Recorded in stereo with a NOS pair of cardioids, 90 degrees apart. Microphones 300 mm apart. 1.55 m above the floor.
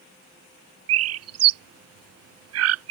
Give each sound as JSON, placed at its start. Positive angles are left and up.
{"t": 0.9, "sound": "a bird", "azimuth_deg": -60}